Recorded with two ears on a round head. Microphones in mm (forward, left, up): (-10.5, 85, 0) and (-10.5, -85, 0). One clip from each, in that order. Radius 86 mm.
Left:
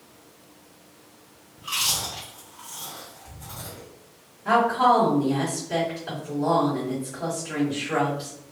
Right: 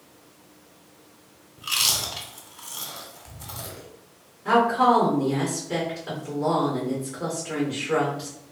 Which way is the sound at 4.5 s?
25° right (ahead or behind).